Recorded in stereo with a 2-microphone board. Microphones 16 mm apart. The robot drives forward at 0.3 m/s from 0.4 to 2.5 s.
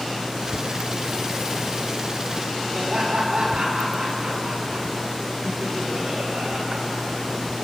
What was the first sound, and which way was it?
Laughter, 80° right.